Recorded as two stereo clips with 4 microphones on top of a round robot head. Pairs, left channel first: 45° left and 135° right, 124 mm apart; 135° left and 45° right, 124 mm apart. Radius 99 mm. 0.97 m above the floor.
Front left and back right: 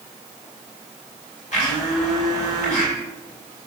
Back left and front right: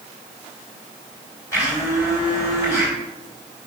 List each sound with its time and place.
1.5 s a blender: 70° left, 4 m